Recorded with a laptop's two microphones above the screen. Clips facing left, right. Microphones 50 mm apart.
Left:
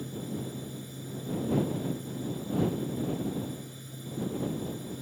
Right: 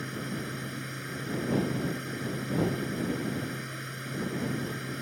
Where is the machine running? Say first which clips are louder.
Right 1 dB; 65° right (ahead or behind).